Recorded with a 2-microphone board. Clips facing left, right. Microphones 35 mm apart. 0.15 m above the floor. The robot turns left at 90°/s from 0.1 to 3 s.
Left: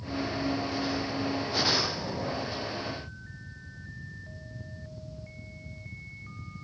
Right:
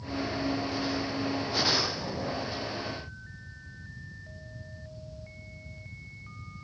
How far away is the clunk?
I don't hear a clunk.